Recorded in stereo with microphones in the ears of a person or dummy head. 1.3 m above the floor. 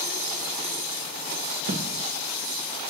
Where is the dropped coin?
40° right (ahead or behind), 0.7 m.